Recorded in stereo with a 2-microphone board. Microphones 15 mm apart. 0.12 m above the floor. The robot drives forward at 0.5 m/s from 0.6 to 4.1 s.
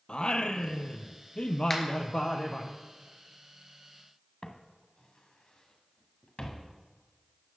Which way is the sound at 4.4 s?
55° left (ahead or behind).